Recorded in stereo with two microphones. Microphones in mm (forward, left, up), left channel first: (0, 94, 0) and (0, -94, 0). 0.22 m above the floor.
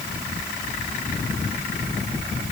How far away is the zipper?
No zipper in this recording.